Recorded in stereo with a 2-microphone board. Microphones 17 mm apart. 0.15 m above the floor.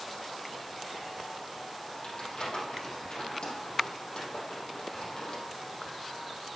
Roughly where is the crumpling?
Left.